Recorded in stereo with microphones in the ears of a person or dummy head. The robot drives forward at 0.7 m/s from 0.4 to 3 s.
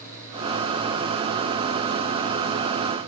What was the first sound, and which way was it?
Only background noise.